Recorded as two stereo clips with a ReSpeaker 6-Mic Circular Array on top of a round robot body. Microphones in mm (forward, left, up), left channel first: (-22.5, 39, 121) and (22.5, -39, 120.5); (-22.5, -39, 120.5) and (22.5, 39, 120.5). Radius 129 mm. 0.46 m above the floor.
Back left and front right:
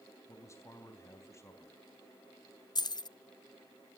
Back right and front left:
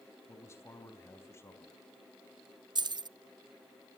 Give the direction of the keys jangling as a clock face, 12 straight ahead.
9 o'clock.